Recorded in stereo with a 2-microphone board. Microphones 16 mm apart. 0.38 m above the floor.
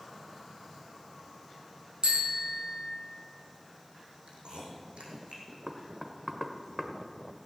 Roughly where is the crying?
No crying in this recording.